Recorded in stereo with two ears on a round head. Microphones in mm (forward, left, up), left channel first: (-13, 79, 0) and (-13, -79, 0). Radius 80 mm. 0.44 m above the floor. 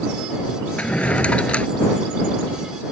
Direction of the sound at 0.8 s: 5° left (ahead or behind).